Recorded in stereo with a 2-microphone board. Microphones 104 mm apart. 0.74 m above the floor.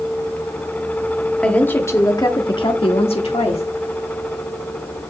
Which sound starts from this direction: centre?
A woman speaking, at 1.4 s.